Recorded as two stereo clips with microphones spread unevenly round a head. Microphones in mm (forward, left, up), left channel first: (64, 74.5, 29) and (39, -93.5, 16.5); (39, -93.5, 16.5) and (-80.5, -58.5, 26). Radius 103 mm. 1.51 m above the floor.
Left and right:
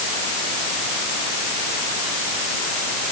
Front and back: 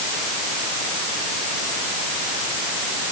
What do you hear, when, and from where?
Only background noise.